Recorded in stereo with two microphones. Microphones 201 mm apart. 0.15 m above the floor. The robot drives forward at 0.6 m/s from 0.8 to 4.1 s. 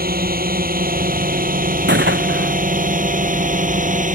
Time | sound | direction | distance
0.0 | a drone | 50° right (ahead or behind) | ?
1.9 | a gunshot | 65° right (ahead or behind) | ?